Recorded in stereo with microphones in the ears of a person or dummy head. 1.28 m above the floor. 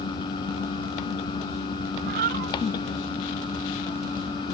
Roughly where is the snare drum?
I don't hear a snare drum.